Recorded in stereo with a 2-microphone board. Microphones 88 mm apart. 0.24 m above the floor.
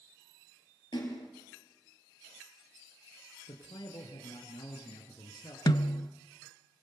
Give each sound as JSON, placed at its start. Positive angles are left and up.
{"t": 0.9, "sound": "a splash", "side_deg": 60, "distance_m": 6.5}
{"t": 3.5, "sound": "a man speaking", "side_deg": 55, "distance_m": 4.0}
{"t": 5.7, "sound": "a snare drum", "side_deg": 50, "distance_m": 0.8}